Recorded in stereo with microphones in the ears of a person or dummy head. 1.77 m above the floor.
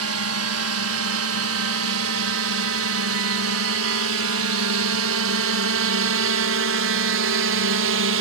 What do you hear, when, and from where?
0.0 s a drone: 70° right (ahead or behind); by 8.2 s 65° right (ahead or behind)